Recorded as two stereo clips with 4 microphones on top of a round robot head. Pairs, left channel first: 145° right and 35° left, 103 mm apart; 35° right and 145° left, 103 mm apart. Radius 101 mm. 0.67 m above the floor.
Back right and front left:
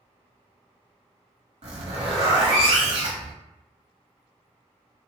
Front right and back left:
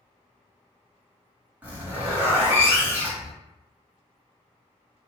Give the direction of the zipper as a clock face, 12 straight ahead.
10 o'clock.